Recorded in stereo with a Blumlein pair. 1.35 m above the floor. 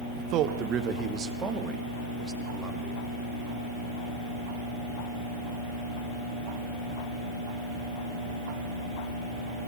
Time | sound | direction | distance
0.2 | a man speaking | 40° right | 1.5 m